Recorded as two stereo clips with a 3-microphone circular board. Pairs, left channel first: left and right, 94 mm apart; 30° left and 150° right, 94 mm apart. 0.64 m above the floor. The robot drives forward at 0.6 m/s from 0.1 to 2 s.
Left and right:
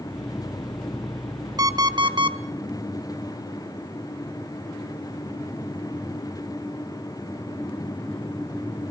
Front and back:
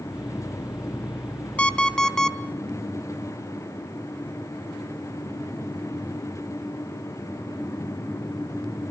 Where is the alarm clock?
45° right, 1.6 m; by 2.4 s 55° right, 1.5 m.